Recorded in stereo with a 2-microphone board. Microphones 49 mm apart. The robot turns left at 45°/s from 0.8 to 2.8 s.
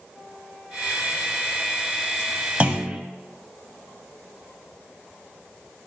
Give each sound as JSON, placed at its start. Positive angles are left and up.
{"t": 2.6, "sound": "a clunk", "side_deg": -30, "distance_m": 0.5}